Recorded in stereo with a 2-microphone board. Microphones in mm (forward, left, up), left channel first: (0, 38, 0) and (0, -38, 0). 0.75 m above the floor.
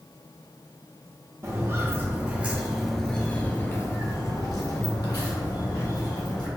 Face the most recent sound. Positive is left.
turn(degrees=60)  # may be behind; listen again after turning